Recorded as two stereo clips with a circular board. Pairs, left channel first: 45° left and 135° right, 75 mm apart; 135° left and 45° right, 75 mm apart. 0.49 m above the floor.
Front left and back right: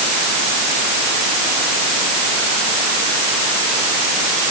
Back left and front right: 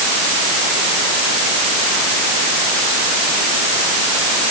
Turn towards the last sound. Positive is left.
No sound to turn to.